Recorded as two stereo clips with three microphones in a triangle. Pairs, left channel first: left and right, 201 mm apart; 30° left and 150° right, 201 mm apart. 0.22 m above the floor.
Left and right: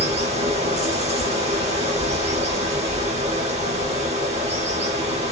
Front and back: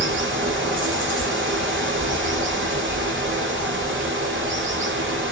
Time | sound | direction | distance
0.0 | running water | 145° right | 1.1 m